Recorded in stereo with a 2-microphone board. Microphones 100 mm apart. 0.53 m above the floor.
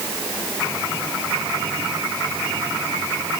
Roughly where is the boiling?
No boiling in this recording.